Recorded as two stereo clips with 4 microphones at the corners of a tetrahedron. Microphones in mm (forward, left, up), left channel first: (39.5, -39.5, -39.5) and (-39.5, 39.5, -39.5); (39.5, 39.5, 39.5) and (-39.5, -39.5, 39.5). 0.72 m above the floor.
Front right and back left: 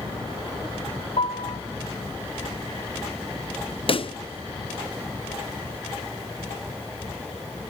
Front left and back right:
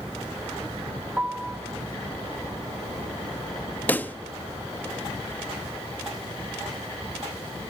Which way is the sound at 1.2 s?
60° right.